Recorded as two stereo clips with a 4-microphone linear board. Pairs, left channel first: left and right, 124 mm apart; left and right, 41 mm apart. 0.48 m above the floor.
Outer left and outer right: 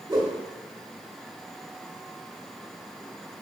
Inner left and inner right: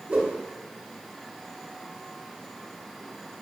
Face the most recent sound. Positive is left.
turn(degrees=-35)  # may be behind; listen again after turning